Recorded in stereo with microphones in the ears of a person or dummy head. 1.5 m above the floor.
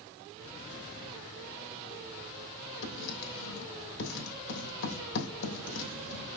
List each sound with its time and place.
2.8 s writing: 65° left (ahead or behind), 3 m